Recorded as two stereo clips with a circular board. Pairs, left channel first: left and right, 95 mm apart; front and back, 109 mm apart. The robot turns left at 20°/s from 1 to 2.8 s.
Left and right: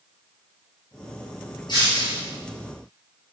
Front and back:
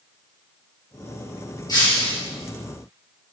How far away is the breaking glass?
About 4.5 m.